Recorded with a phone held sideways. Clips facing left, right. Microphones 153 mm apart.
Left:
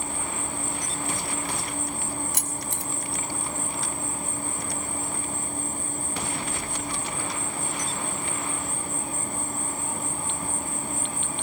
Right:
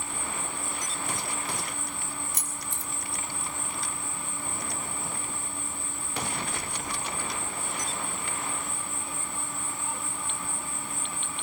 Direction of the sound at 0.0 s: 45° left (ahead or behind).